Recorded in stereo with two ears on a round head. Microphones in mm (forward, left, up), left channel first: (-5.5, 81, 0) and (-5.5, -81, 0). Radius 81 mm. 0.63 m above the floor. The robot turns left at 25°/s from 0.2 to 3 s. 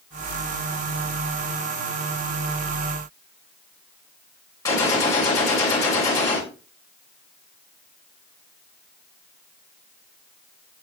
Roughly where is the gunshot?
Centre.